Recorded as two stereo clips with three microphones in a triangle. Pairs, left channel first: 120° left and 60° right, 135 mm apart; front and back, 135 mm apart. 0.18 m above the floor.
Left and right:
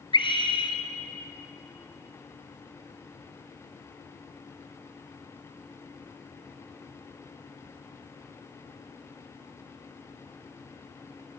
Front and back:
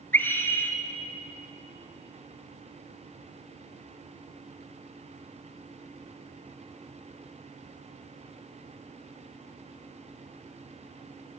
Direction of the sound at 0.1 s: 75° left.